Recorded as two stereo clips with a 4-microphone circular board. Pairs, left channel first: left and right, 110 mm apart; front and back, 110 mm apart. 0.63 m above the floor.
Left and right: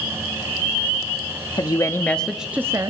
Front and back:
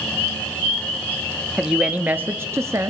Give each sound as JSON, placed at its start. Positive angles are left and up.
{"t": 1.6, "sound": "a woman speaking", "azimuth_deg": 100, "distance_m": 0.8}